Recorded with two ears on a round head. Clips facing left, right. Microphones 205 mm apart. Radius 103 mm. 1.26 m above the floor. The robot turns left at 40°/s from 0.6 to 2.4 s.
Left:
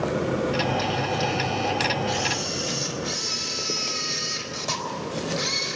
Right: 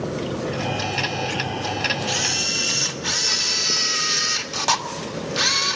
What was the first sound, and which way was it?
A camera shutter, 65° right (ahead or behind).